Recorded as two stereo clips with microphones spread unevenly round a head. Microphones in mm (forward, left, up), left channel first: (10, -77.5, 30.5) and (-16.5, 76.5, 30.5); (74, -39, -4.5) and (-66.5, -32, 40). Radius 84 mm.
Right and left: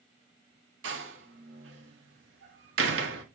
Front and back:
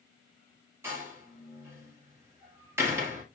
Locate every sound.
0.8 s a door slam: 105° left, 1.9 m